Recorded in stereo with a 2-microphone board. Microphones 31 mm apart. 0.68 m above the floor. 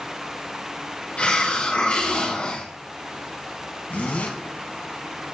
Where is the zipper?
75° left (ahead or behind), 1.7 m.